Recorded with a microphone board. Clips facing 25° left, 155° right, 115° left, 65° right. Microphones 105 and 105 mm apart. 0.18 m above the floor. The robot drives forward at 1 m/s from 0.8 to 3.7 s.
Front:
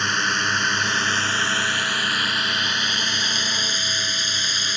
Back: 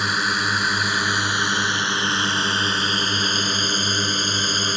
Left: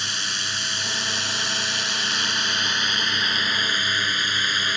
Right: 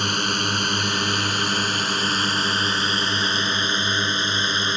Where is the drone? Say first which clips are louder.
Back 1 dB, right 8 dB; 75° right; by 4.8 s 125° right.